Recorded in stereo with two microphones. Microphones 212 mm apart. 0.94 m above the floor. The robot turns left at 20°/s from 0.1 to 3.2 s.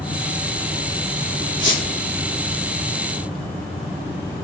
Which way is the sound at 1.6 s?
65° left (ahead or behind).